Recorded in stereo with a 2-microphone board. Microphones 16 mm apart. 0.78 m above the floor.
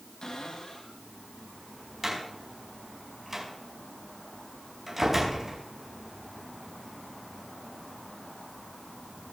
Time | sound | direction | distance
0.2 | a cupboard door | 70° left (ahead or behind) | 6 m
2.0 | a door slam | 25° right (ahead or behind) | 5 m